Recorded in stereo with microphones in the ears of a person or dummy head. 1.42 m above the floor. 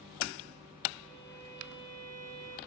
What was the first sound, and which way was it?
A violin, 45° right (ahead or behind).